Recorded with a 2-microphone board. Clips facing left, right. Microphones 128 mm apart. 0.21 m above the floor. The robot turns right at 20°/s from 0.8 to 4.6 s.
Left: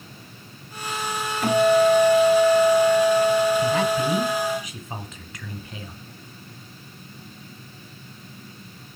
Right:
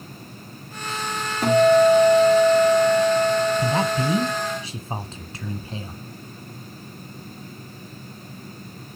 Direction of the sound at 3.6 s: 35° right (ahead or behind).